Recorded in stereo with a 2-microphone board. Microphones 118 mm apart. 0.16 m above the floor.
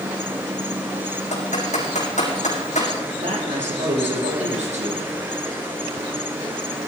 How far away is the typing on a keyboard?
About 5.5 m.